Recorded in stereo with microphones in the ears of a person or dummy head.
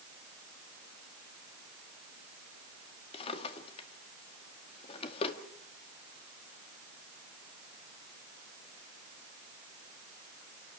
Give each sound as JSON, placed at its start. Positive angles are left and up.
{"t": 3.1, "sound": "a drawer", "side_deg": 30, "distance_m": 1.9}